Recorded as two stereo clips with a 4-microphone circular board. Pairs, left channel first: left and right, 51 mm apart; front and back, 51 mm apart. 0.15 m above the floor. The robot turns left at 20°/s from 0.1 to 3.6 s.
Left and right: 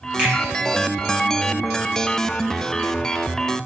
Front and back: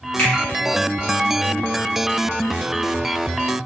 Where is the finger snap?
40° right, 1.2 m; by 0.3 s 45° right, 1.2 m.